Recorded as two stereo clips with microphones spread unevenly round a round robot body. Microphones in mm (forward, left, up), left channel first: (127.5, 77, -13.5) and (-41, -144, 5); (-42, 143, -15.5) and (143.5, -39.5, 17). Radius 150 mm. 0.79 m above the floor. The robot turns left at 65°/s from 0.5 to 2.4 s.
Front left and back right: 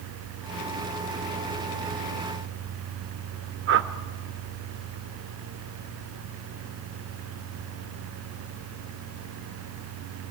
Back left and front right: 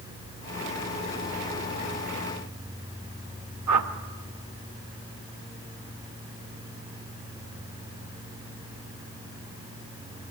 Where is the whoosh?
80° right, 1.0 m.